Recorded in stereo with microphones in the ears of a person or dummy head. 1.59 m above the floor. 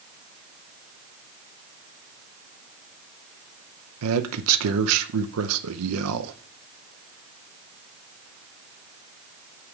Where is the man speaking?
80° right, 0.8 m.